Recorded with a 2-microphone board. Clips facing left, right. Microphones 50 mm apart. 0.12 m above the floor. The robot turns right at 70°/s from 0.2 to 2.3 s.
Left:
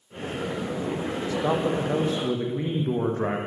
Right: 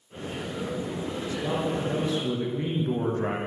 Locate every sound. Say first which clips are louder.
1.3 s a man speaking: left 4 dB; 85° left, 5.5 m; by 3.4 s 155° left, 5.5 m